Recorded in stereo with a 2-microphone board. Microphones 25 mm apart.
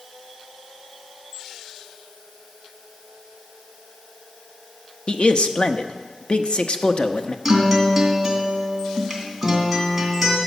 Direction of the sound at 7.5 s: 5° right (ahead or behind).